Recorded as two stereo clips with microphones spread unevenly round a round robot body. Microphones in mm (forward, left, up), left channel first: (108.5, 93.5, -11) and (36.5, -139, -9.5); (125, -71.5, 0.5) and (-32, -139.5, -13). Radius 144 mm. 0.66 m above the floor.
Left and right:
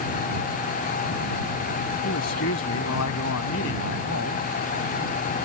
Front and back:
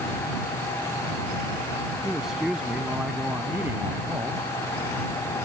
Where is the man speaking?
115° left; by 4.4 s 120° left.